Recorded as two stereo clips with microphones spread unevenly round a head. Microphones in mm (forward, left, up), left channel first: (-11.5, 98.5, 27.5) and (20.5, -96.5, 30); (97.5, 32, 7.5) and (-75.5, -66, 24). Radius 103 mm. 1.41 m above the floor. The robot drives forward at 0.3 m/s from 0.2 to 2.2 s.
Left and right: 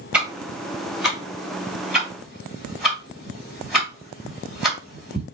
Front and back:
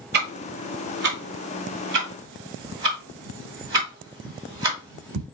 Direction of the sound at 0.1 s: 165° right.